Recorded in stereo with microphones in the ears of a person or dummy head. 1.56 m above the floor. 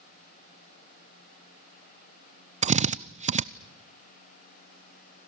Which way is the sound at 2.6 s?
30° right (ahead or behind).